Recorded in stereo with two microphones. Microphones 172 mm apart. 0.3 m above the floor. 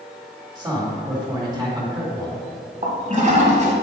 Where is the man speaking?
20° right (ahead or behind), 2.0 m.